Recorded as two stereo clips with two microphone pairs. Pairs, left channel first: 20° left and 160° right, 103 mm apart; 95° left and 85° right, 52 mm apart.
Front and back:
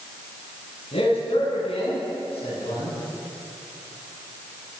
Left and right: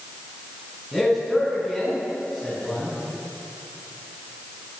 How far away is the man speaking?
About 8 m.